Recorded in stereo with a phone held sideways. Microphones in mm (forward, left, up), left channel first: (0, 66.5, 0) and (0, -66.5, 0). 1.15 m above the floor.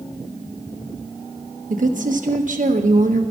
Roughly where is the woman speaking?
Right.